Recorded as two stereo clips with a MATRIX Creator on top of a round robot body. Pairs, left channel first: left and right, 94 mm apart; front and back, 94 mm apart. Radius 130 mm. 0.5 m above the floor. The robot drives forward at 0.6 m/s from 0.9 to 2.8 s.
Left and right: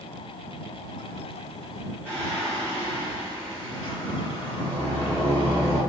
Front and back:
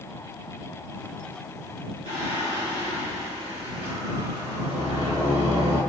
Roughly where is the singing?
Behind.